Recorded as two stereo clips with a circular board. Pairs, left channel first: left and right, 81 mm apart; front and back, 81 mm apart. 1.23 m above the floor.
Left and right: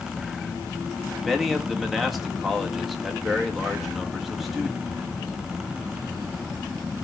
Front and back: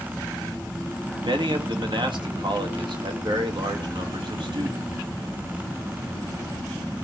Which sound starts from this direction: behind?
A man speaking, at 1.2 s.